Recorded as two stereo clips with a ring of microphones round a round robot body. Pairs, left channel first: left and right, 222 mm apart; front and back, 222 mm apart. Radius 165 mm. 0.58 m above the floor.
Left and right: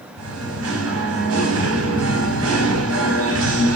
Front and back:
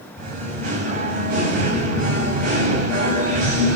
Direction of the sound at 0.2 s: 120° right.